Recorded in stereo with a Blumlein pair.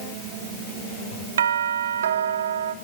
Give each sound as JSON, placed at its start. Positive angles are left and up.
{"t": 1.4, "sound": "a doorbell", "azimuth_deg": -65, "distance_m": 1.2}